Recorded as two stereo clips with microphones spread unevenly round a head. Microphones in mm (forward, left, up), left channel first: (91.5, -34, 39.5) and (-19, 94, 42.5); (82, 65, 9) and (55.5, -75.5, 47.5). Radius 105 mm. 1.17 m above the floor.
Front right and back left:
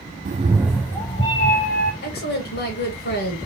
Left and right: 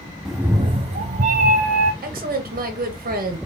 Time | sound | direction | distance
0.2 | a cat meowing | straight behind | 0.5 m
2.0 | a woman speaking | 75° right | 1.6 m